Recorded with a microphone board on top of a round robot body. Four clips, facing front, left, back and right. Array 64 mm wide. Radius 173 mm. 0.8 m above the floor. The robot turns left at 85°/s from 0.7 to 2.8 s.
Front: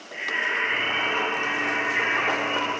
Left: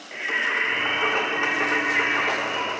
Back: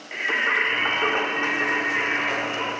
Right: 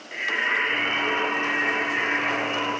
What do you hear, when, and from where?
0.1 s singing: 175° left, 0.9 m; by 2.7 s 5° left, 0.9 m